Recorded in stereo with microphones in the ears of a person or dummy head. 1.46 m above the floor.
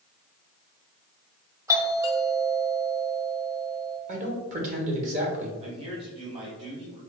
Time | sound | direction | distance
1.7 | a doorbell | 15° right (ahead or behind) | 1.0 m
4.1 | a man speaking | 40° right (ahead or behind) | 1.4 m
5.6 | a man speaking | 30° right (ahead or behind) | 1.5 m